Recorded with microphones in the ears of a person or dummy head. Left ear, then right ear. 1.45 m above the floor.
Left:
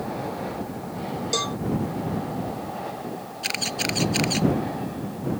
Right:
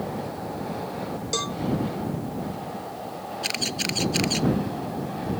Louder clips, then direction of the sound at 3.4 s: Left 1 dB; 5° left (ahead or behind).